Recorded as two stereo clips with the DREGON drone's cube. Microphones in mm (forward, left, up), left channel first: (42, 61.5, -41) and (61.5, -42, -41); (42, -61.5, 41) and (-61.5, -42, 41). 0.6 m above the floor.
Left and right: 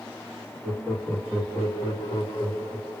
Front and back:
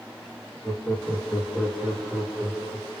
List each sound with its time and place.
0.6 s laughter: 15° left, 1.0 m; by 3.0 s 110° left, 1.5 m